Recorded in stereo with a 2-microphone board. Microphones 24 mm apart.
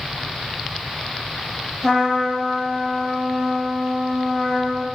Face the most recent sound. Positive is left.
turn(degrees=5)  # may be behind; listen again after turning